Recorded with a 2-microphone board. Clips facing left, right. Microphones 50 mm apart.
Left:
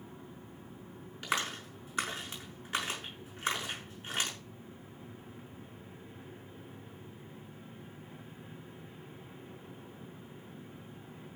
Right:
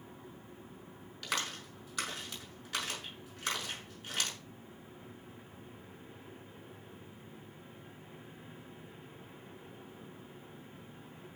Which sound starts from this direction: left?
A clap, at 1.2 s.